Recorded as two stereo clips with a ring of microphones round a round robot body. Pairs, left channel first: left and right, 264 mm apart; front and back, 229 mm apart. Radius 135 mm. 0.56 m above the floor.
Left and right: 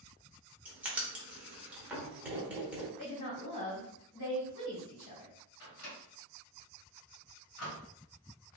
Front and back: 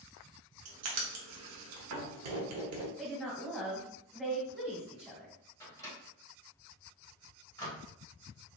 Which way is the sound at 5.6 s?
75° left.